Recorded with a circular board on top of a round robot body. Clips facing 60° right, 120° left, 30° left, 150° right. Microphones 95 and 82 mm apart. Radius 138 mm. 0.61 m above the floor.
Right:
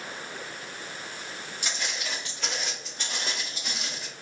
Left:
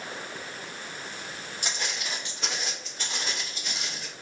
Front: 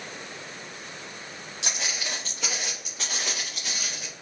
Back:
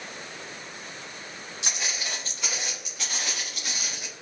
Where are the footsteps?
70° left, 1.1 m; by 4.1 s 75° right, 1.0 m.